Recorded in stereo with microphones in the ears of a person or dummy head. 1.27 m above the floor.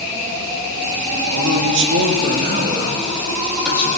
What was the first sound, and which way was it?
A man speaking, 80° right.